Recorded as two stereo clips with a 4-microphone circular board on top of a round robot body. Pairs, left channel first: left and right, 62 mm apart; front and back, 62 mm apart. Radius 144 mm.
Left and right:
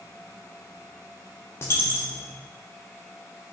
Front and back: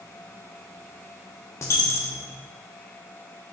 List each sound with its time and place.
1.6 s a dropped coin: 40° left, 0.8 m